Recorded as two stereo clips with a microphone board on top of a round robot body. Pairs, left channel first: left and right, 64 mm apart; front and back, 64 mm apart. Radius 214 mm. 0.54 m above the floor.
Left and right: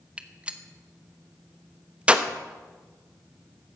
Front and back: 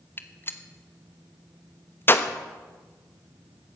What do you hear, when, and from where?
0.2 s a gunshot: 30° right, 1.4 m